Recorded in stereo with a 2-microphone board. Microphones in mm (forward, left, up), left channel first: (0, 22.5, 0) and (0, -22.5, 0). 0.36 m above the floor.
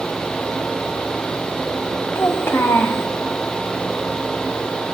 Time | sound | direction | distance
2.1 | a child speaking | 65° left (ahead or behind) | 1.6 m